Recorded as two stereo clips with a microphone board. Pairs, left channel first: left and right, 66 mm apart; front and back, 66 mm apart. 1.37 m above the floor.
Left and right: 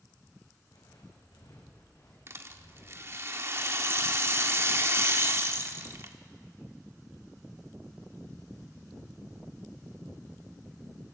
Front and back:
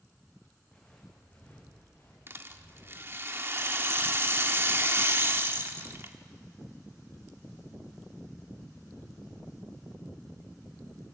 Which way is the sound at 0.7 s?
75° left.